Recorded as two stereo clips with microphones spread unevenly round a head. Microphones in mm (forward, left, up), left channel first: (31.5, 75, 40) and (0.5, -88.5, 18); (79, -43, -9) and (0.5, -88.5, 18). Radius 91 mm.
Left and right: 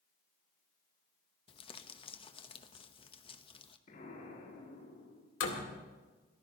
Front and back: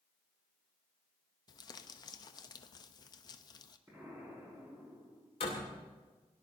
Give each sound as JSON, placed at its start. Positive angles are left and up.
{"t": 1.5, "sound": "crumpling", "azimuth_deg": 20, "distance_m": 1.0}
{"t": 3.9, "sound": "an explosion", "azimuth_deg": 130, "distance_m": 6.5}
{"t": 5.4, "sound": "a door slam", "azimuth_deg": 75, "distance_m": 2.5}